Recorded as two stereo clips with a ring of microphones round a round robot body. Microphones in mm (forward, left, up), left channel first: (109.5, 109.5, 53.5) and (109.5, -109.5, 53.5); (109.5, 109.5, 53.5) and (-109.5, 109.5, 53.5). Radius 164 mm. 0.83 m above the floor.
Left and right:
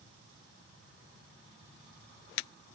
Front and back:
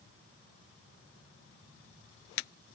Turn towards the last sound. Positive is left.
No sound to turn to.